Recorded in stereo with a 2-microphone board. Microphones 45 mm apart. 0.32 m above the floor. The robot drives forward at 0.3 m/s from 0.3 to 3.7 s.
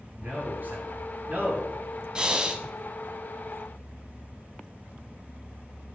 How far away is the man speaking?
About 5.5 m.